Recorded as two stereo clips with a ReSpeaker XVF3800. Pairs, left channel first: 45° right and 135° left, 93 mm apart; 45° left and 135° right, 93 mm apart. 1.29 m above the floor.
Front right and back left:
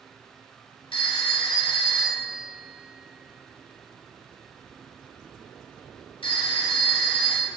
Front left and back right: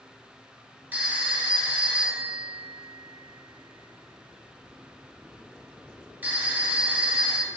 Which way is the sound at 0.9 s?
65° right.